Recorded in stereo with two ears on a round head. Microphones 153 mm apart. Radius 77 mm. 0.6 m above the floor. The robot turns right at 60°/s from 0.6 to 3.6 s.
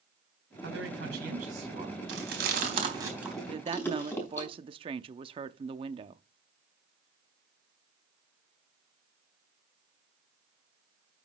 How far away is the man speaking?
About 4 m.